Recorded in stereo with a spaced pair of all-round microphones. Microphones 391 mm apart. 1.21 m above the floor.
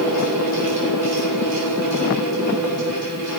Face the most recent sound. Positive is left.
turn(degrees=-50)  # may be behind; listen again after turning